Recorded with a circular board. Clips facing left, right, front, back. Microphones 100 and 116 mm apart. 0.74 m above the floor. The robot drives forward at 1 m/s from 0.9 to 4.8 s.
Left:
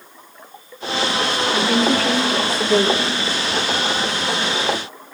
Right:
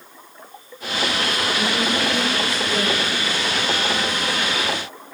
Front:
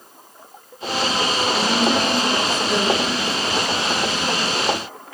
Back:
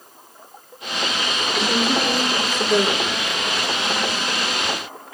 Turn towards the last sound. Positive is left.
turn(degrees=145)